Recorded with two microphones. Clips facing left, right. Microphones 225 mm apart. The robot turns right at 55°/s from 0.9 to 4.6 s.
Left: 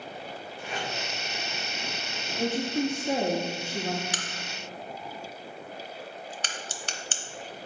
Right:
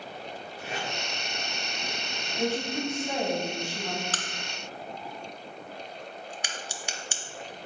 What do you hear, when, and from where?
0.6 s tape being pulled: 65° right (ahead or behind), 2.5 m
2.4 s a woman speaking: 10° left, 0.8 m; by 4.0 s 100° left, 0.8 m
4.1 s a crack: 15° left (ahead or behind), 0.6 m; by 7.2 s 10° right (ahead or behind), 0.6 m